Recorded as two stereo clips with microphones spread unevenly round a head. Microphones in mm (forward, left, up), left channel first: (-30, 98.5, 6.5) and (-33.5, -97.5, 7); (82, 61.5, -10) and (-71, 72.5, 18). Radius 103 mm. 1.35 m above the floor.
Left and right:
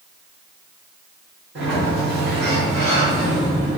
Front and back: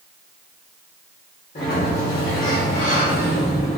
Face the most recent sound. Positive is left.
turn(degrees=-50)